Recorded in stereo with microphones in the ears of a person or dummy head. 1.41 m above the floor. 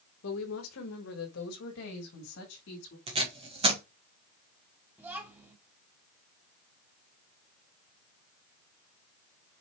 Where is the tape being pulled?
30° right (ahead or behind), 1.6 m.